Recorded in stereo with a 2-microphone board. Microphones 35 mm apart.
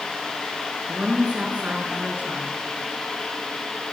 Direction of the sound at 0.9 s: 40° right (ahead or behind).